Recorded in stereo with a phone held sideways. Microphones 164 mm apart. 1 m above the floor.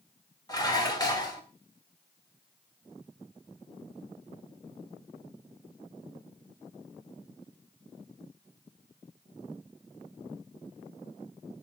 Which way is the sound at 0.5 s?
20° left (ahead or behind).